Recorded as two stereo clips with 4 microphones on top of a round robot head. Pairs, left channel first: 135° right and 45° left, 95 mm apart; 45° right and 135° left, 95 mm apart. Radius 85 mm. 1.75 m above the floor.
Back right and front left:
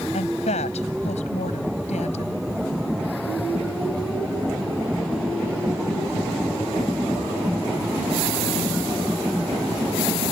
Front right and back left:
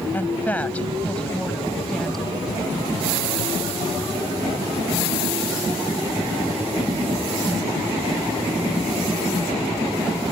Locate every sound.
0.1 s a woman speaking: 115° right; by 2.4 s 130° right